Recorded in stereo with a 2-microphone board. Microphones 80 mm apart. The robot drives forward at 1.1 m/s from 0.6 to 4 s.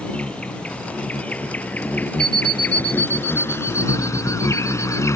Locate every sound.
0.0 s an insect: 15° left (ahead or behind); by 5.2 s 40° left (ahead or behind)
2.2 s an alarm clock: 70° right (ahead or behind); by 5.1 s 20° right (ahead or behind)